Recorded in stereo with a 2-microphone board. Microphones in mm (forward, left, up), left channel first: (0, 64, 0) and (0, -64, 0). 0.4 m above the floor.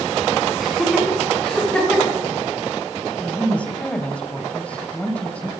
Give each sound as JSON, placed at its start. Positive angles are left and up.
{"t": 0.6, "sound": "laughter", "side_deg": 0, "distance_m": 4.5}
{"t": 3.2, "sound": "a woman speaking", "side_deg": 10, "distance_m": 2.5}